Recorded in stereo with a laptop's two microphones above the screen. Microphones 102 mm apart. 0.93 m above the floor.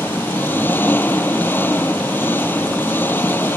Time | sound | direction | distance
0.0 | an engine running | 20° left (ahead or behind) | ?